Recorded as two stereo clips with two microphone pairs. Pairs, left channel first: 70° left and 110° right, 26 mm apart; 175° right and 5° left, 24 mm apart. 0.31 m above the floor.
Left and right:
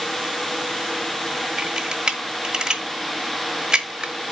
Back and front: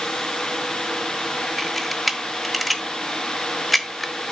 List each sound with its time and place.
1.6 s a camera shutter: 85° right, 0.9 m